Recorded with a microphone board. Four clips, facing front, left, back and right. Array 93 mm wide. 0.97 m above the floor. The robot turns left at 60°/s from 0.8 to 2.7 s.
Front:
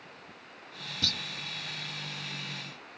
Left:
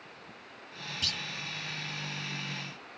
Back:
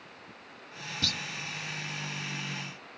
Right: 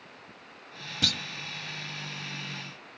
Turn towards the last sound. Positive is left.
turn(degrees=165)